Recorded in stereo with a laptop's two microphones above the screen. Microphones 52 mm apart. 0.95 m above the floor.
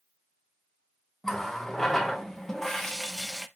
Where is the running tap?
10° left (ahead or behind), 0.6 m.